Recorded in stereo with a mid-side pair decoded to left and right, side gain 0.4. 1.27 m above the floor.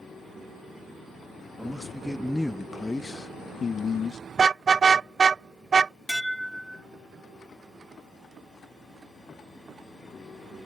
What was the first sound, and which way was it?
A man speaking, 10° right.